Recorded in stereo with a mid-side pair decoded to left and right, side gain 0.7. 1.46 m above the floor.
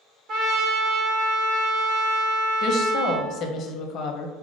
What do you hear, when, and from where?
0.3 s a trumpet: 50° right, 0.8 m
2.6 s a woman speaking: 50° left, 0.6 m